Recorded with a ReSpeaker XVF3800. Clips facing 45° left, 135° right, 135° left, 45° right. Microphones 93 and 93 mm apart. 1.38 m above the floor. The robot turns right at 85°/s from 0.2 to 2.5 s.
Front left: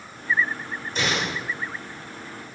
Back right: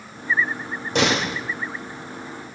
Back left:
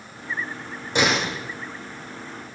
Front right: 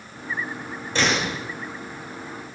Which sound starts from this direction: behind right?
A door slam, at 0.9 s.